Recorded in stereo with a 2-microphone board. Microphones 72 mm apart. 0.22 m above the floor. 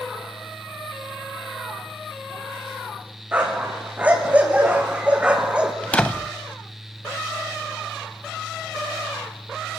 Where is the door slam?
20° left (ahead or behind), 0.8 m.